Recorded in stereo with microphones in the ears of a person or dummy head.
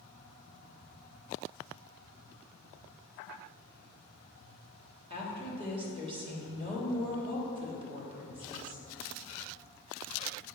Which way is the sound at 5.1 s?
30° right (ahead or behind).